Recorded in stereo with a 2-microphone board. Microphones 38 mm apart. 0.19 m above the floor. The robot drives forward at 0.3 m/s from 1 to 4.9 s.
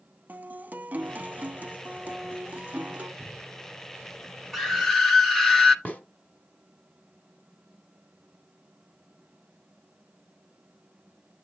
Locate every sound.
0.3 s a guitar: 45° right (ahead or behind), 0.8 m; by 3.1 s 35° right (ahead or behind), 1.0 m
3.2 s a cupboard door: 15° right (ahead or behind), 2 m
4.5 s a scream: 5° left (ahead or behind), 1.1 m
5.8 s a snare drum: 35° left (ahead or behind), 1.4 m